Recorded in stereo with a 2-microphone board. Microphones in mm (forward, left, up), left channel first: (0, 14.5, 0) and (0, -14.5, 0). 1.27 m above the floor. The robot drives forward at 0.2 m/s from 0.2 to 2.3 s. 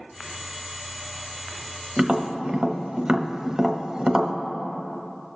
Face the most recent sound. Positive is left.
turn(degrees=-30)  # may be behind; listen again after turning